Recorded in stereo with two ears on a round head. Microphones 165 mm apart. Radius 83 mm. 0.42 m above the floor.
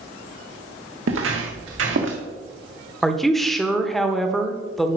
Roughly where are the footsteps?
Right.